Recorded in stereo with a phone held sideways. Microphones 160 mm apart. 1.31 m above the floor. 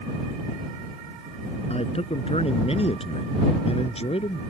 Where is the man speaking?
40° left (ahead or behind).